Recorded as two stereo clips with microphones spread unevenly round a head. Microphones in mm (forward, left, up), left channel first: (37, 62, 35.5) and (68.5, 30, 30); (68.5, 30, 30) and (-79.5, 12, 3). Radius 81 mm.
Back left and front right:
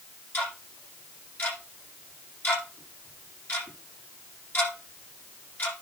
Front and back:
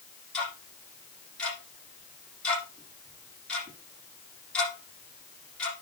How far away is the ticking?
About 6.5 m.